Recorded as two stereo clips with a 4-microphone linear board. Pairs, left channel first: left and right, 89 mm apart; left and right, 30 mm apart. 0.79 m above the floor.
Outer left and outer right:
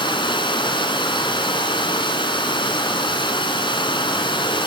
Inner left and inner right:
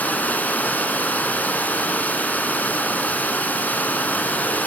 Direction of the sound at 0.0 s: 65° left (ahead or behind).